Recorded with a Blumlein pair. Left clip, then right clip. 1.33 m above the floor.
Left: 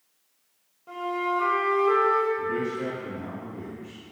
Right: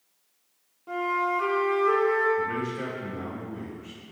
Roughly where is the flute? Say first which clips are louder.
Right 2 dB; ahead.